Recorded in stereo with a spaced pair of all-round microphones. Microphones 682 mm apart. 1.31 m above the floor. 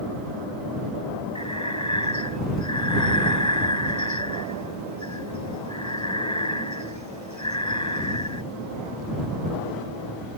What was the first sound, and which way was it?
Breathing, 25° left (ahead or behind).